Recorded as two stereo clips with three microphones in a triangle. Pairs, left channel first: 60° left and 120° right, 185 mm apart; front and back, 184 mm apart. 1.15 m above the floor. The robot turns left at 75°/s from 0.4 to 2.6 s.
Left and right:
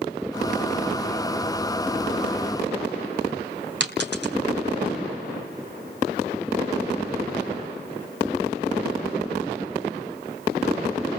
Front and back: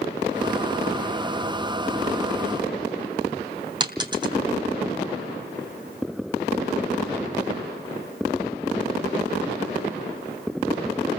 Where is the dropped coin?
115° right, 2.5 m.